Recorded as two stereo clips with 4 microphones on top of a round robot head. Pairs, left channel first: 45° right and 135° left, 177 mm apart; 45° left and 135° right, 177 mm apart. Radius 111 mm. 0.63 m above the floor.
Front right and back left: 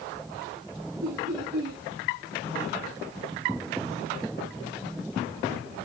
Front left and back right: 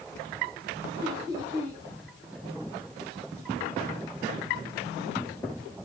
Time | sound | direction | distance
1.0 | laughter | 155° left | 8 m